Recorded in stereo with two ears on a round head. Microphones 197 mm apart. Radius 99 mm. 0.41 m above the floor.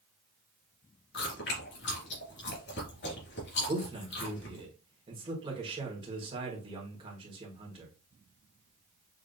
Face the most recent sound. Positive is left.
turn(degrees=-25)  # may be behind; listen again after turning